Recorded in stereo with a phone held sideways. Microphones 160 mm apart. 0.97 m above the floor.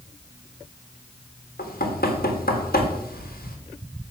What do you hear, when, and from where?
1.6 s knocking: 70° left (ahead or behind), 1.3 m